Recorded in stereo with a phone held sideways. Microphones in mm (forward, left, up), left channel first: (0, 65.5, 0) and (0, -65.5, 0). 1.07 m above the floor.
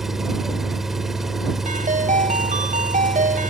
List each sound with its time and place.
0.0 s an engine running: 5° right (ahead or behind)
1.6 s a ringtone: 90° right